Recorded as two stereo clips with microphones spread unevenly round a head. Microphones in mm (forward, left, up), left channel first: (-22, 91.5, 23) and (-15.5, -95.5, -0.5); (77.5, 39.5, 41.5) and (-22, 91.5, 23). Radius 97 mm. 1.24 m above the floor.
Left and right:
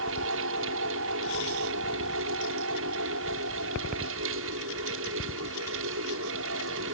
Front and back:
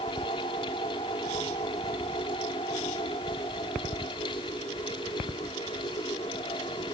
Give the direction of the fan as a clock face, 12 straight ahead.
3 o'clock.